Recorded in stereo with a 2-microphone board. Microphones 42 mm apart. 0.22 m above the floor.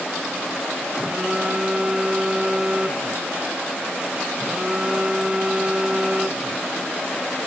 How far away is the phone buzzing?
About 0.8 m.